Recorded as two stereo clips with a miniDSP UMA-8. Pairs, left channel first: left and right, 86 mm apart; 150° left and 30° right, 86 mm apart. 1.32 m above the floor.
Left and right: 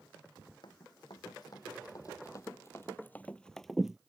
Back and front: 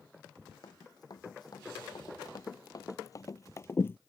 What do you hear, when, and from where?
0.6 s running footsteps: 115° left; by 4.0 s 165° right